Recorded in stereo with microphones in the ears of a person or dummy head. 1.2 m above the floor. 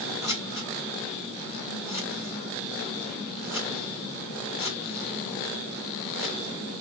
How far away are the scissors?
About 1.3 m.